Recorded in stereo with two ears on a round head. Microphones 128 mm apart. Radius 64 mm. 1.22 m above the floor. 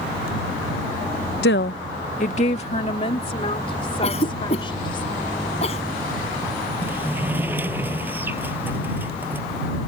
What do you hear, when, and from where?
1.4 s a woman speaking: 80° left; by 5.0 s 35° left (ahead or behind)
4.0 s a cough: 45° left (ahead or behind)
6.8 s a sliding door: 15° right (ahead or behind)